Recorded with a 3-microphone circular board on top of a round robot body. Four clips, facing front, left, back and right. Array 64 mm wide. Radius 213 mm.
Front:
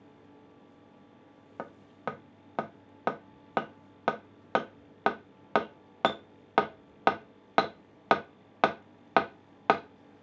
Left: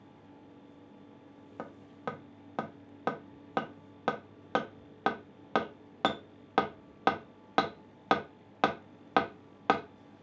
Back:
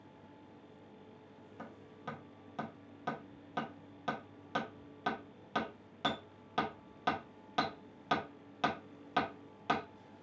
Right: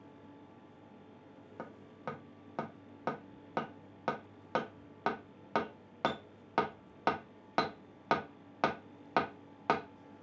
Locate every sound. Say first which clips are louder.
1.6 s hammering: left 4 dB, front 10 dB; 5° left, 0.9 m